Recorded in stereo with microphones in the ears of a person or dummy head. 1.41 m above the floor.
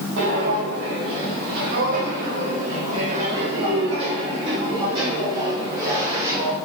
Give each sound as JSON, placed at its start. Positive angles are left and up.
{"t": 0.2, "sound": "footsteps", "side_deg": -55, "distance_m": 3.5}